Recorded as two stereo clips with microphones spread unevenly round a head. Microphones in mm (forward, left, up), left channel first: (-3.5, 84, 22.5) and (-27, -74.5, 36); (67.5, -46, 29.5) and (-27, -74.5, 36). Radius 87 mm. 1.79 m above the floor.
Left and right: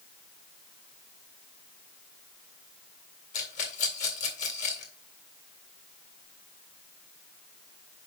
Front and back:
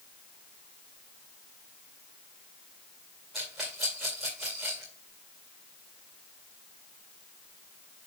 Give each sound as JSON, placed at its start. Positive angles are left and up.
{"t": 3.3, "sound": "a rattle", "azimuth_deg": 110, "distance_m": 1.9}